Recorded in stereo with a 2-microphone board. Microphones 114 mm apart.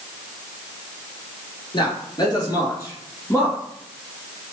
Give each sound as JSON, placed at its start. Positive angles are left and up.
{"t": 1.7, "sound": "a man speaking", "side_deg": 40, "distance_m": 2.5}